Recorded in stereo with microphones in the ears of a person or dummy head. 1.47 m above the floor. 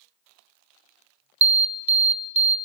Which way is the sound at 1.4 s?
35° right (ahead or behind).